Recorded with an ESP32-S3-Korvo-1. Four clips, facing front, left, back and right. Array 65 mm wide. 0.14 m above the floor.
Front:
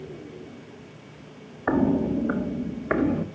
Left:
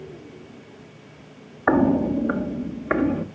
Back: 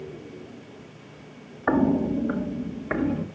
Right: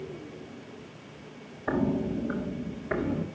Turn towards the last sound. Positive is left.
turn(degrees=50)